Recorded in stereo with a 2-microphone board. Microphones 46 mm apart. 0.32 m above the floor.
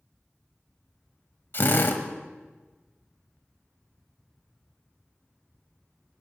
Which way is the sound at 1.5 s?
50° left (ahead or behind).